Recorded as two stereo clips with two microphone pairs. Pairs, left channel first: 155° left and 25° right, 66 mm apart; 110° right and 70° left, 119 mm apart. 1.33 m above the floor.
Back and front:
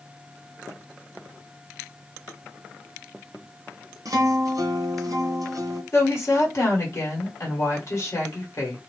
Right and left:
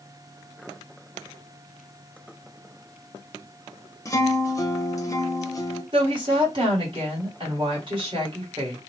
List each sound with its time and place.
4.0 s a guitar: 50° right, 0.7 m
5.9 s a woman speaking: 110° left, 1.5 m